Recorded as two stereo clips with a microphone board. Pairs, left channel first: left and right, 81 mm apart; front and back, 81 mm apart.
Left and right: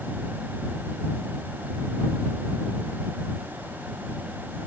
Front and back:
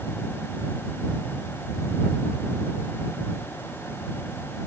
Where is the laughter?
No laughter in this recording.